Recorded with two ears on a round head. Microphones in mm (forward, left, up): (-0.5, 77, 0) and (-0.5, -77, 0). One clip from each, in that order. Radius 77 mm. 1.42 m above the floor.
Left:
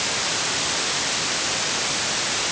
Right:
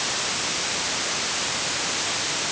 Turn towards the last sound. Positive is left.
No sound to turn to.